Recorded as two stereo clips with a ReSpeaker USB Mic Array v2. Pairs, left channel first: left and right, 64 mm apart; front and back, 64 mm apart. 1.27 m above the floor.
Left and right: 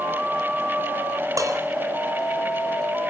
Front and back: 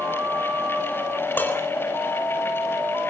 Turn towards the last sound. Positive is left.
turn(degrees=-60)